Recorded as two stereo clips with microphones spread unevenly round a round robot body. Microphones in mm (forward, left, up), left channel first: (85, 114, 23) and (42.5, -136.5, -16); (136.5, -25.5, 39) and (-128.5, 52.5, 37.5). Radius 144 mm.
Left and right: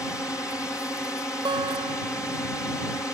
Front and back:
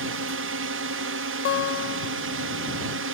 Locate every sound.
0.0 s a drone: 165° left
1.4 s a guitar: 45° right